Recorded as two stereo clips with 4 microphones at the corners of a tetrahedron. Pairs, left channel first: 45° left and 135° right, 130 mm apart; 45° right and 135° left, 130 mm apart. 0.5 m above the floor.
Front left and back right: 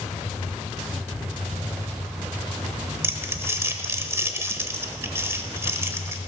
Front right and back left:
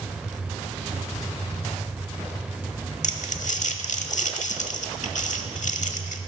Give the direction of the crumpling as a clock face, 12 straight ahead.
2 o'clock.